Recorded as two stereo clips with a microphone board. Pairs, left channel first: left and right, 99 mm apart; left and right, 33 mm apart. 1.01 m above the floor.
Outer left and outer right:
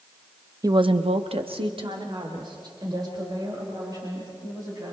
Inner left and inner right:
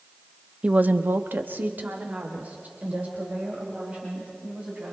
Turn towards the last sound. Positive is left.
turn(degrees=-40)  # may be behind; listen again after turning